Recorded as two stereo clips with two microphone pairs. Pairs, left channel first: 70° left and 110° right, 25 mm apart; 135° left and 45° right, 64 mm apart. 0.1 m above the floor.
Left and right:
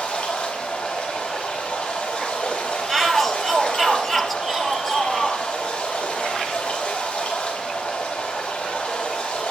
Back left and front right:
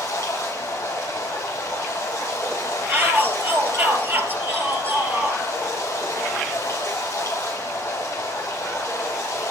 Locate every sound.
0.0 s running water: 90° left, 6.5 m
2.9 s a shout: straight ahead, 2.5 m